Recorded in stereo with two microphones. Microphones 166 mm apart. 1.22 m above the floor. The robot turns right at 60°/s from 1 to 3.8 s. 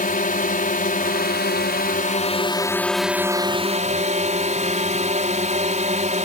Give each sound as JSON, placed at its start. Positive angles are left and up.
{"t": 0.0, "sound": "a drone", "azimuth_deg": 60}